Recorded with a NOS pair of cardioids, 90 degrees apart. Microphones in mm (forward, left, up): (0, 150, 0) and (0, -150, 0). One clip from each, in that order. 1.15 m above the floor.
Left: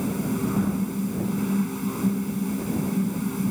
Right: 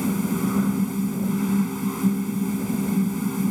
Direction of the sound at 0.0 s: 50° right.